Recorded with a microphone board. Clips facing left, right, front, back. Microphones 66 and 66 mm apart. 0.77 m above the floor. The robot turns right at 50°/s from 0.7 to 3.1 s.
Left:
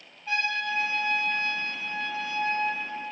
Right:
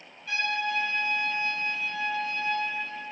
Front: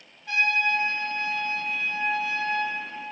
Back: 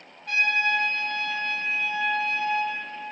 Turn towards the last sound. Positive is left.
turn(degrees=-90)